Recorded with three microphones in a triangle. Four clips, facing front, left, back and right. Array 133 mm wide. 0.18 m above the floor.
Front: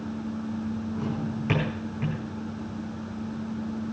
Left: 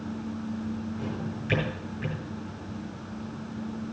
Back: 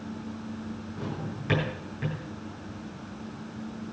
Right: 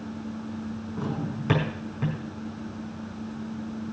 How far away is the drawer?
About 4.5 m.